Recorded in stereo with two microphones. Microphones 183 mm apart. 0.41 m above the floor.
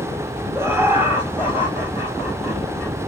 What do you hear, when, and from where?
0.6 s laughter: 15° right (ahead or behind), 1.3 m; by 3.0 s 10° right (ahead or behind), 2.5 m